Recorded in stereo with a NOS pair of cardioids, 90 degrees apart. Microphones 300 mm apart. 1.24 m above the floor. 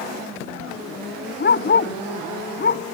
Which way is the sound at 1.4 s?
35° left.